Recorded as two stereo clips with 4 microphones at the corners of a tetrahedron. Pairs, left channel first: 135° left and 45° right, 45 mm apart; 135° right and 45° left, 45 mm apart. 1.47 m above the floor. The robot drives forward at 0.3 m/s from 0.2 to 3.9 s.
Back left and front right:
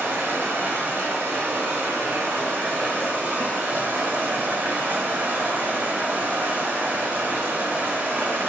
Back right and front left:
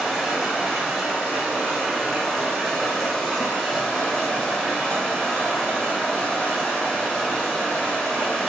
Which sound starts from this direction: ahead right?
Running water, at 0.0 s.